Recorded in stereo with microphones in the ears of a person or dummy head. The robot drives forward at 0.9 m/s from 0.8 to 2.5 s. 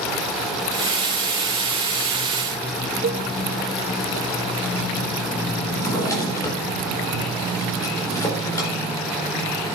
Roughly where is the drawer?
Centre.